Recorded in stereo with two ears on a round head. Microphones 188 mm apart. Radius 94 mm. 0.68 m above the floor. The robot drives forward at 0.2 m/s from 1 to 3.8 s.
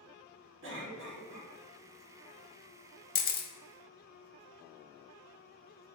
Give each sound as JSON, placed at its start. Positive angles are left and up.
{"t": 0.6, "sound": "a cough", "side_deg": -60, "distance_m": 1.5}
{"t": 3.1, "sound": "a camera shutter", "side_deg": 40, "distance_m": 0.6}